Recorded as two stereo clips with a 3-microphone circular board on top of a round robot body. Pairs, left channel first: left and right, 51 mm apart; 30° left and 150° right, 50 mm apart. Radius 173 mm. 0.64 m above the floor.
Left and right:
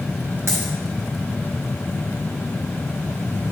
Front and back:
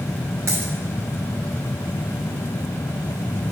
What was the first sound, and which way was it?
A dropped coin, 125° right.